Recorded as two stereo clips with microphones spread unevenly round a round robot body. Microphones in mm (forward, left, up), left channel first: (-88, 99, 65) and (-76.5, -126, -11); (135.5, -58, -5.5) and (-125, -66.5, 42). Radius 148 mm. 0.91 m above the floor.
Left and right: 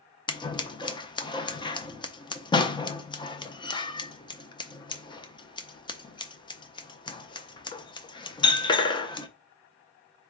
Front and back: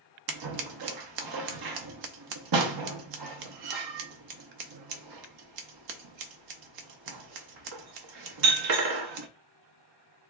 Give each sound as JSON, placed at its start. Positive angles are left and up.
{"t": 0.3, "sound": "scissors", "azimuth_deg": 165, "distance_m": 0.5}